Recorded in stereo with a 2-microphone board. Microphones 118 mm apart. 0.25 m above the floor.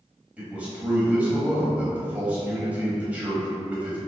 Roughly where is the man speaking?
Centre.